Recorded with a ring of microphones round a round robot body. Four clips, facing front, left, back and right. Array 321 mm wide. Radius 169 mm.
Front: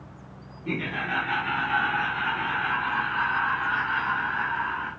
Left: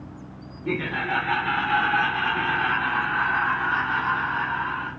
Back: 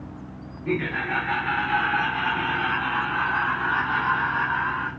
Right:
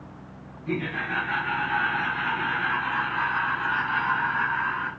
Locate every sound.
0.7 s laughter: 105° left, 3 m; by 4.9 s 160° left, 2.5 m